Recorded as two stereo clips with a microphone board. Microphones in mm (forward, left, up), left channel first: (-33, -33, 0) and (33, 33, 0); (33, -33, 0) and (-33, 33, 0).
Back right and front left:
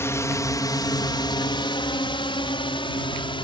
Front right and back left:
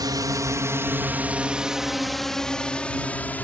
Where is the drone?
170° left; by 3.5 s 115° right.